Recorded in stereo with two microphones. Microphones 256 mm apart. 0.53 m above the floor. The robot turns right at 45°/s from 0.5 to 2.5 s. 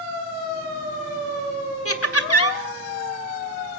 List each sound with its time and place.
1.9 s laughter: 60° left (ahead or behind), 1.9 m; by 2.6 s 65° left (ahead or behind), 1.9 m